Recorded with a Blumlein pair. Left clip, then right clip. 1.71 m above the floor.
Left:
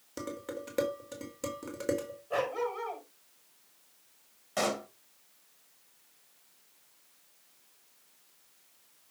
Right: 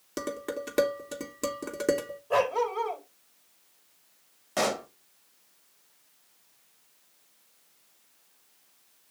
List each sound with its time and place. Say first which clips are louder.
0.2 s dishes clattering: right 6 dB; 50° right, 3 m
2.3 s a dog barking: right 6 dB; 35° right, 3.5 m
4.6 s a pop: right 3 dB; 20° right, 1.6 m